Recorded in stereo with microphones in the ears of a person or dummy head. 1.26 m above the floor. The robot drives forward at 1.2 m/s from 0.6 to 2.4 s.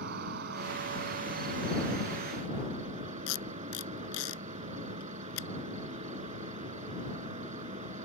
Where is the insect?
60° right (ahead or behind); by 8.1 s 40° right (ahead or behind).